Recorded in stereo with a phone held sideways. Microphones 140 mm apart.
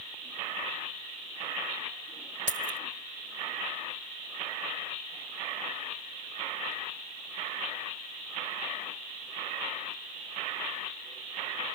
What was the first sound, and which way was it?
Keys jangling, 75° right (ahead or behind).